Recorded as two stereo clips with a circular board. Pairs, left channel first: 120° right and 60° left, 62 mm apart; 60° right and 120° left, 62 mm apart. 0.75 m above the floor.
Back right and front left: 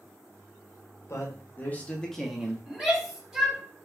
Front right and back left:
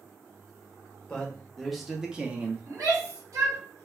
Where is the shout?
140° left, 1.6 m.